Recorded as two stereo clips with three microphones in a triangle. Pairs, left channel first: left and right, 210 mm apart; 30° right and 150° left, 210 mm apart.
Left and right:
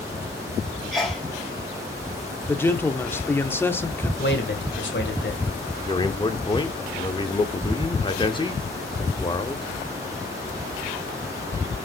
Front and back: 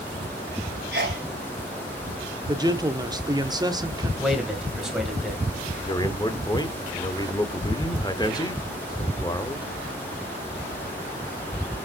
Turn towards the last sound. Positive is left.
turn(degrees=30)